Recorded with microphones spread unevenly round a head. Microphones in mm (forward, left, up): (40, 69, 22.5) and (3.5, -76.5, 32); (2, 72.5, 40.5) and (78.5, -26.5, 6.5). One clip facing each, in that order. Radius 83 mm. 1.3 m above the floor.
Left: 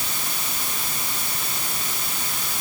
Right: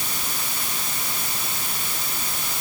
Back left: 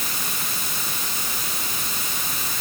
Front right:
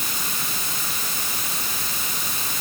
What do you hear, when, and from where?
Only background noise.